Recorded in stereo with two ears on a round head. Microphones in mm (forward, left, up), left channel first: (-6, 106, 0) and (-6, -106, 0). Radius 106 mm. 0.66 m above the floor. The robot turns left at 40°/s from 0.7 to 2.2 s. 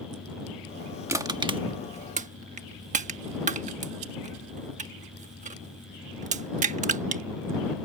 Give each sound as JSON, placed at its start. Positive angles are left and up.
{"t": 1.1, "sound": "crushing", "side_deg": -10}